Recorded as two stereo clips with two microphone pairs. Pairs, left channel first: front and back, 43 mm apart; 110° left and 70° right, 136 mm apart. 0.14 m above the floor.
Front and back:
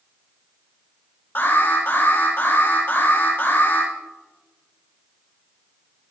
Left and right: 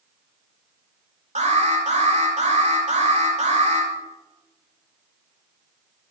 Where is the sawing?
I don't hear sawing.